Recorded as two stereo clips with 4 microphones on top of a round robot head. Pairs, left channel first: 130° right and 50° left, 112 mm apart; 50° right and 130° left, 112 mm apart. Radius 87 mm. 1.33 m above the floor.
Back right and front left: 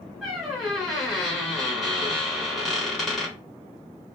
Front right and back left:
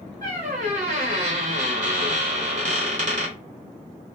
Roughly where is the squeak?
Behind left.